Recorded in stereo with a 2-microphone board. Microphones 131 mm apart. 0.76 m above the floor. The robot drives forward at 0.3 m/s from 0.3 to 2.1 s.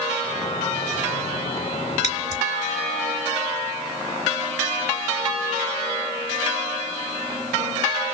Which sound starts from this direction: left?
Scissors, at 2.0 s.